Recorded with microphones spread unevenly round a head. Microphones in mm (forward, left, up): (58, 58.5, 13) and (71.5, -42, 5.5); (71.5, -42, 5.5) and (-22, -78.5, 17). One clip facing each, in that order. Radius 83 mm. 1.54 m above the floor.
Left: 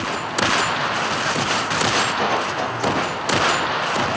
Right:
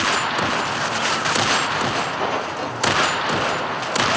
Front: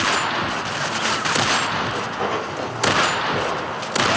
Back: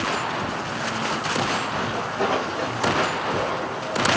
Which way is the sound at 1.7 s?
135° left.